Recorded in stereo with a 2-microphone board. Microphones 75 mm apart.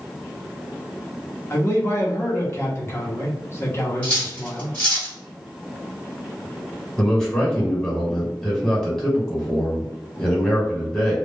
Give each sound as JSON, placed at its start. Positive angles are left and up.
{"t": 1.5, "sound": "a man speaking", "side_deg": 30, "distance_m": 0.9}
{"t": 4.0, "sound": "cutlery clinking", "side_deg": 15, "distance_m": 1.4}
{"t": 7.0, "sound": "a man speaking", "side_deg": 5, "distance_m": 1.3}